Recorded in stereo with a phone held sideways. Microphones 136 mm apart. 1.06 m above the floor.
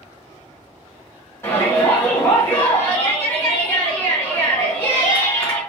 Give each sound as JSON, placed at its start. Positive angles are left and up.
{"t": 1.4, "sound": "a shout", "side_deg": 20, "distance_m": 1.2}